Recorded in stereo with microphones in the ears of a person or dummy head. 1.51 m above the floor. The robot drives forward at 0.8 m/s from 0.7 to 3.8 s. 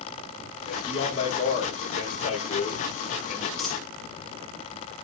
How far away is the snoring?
I don't hear snoring.